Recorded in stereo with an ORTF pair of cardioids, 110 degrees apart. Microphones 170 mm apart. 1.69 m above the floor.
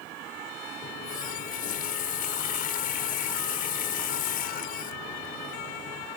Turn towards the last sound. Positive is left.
turn(degrees=60)